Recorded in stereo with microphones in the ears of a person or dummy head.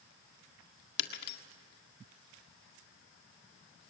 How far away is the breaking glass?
About 1.7 m.